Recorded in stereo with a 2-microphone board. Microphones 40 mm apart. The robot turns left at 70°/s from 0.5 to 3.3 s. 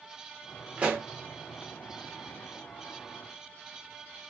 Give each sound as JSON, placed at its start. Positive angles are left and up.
{"t": 0.8, "sound": "a pop", "side_deg": -25, "distance_m": 1.0}